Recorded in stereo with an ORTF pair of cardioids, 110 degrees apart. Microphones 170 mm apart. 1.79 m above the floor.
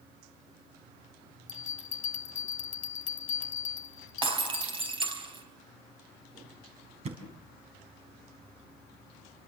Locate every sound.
1.5 s a bell: 45° left, 1.2 m
4.2 s breaking glass: 30° right, 5 m
7.0 s a thud: 40° right, 5 m